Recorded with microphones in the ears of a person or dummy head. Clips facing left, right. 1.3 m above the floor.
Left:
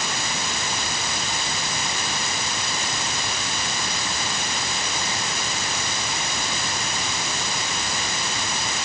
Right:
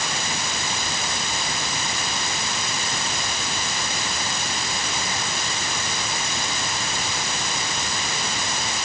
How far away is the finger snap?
I don't hear a finger snap.